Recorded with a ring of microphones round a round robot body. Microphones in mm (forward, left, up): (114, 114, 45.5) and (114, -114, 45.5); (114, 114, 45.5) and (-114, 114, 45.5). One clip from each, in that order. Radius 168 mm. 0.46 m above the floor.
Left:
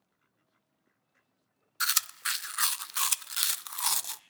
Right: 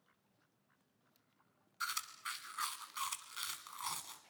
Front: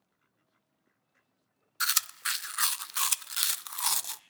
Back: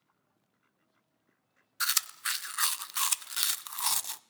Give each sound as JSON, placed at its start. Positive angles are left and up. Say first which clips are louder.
{"t": 1.8, "sound": "chewing", "louder": "left 11 dB, front 1 dB", "azimuth_deg": 80, "distance_m": 0.5}